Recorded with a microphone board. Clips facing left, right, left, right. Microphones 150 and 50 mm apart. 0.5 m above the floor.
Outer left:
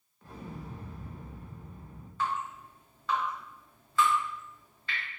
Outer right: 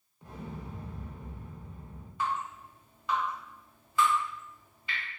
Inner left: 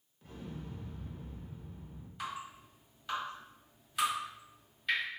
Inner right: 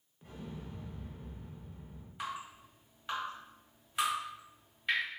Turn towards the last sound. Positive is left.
turn(degrees=-15)  # may be behind; listen again after turning